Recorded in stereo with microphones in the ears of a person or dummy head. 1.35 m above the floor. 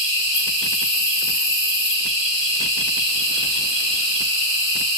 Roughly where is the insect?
Centre.